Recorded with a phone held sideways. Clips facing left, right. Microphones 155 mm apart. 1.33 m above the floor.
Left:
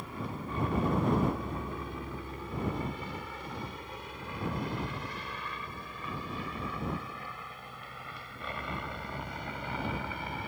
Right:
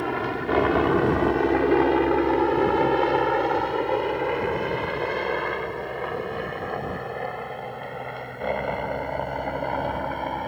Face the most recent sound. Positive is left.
turn(degrees=-55)  # may be behind; listen again after turning